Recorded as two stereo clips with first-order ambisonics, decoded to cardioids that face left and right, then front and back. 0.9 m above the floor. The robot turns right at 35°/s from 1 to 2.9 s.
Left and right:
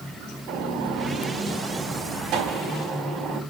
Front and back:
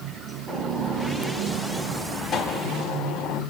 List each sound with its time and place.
0.5 s a gunshot: 100° right, 5.5 m; by 3.4 s 35° right, 5.5 m